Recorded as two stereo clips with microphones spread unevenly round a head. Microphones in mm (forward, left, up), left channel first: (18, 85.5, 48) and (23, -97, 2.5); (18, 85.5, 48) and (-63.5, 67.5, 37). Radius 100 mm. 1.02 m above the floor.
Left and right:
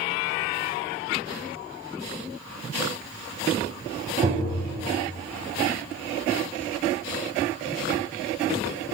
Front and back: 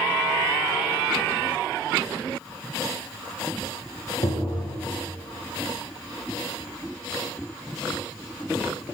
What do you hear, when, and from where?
4.2 s tapping: 30° right, 0.9 m